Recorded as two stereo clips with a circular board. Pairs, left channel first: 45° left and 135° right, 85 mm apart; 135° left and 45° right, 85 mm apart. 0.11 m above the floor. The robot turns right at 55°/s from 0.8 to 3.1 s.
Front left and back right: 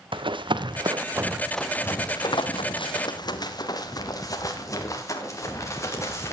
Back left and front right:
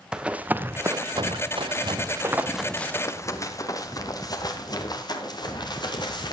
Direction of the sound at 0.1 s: 125° right.